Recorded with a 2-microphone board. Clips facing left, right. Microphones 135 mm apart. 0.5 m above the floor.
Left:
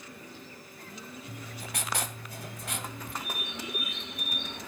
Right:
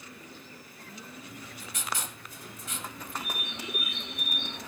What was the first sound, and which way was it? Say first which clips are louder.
Writing: left 3 dB; 70° left (ahead or behind).